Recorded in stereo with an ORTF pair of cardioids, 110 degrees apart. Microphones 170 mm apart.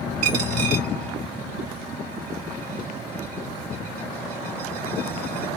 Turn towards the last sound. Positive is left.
turn(degrees=-60)